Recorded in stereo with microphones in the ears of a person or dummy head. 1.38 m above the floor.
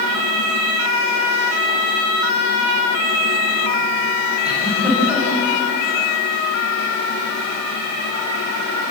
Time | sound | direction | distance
4.5 | a giggle | 5° right (ahead or behind) | 8 m